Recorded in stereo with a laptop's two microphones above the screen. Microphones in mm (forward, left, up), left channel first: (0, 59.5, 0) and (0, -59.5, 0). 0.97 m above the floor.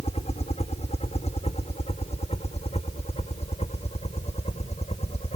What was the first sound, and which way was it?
A helicopter, 60° left (ahead or behind).